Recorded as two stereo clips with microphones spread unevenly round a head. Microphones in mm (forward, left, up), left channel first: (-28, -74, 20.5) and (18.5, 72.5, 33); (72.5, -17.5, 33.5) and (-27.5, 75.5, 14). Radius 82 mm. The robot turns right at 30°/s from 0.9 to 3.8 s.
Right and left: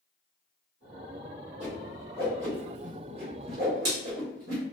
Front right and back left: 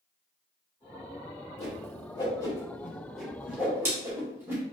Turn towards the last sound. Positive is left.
turn(degrees=60)